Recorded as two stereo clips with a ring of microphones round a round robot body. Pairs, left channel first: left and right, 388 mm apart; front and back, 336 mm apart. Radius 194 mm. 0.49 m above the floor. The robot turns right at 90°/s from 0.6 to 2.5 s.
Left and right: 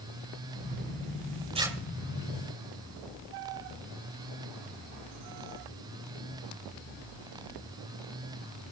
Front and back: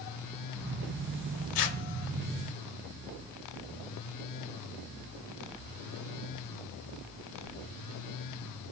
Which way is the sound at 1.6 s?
15° right.